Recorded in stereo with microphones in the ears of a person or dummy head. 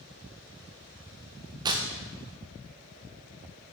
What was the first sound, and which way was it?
Tearing paper, 20° right (ahead or behind).